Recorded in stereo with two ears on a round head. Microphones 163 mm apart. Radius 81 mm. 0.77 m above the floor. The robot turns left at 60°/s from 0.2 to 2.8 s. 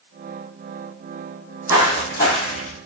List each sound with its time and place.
1.7 s footsteps: 20° right (ahead or behind), 1.5 m; by 2.8 s 50° left (ahead or behind), 1.2 m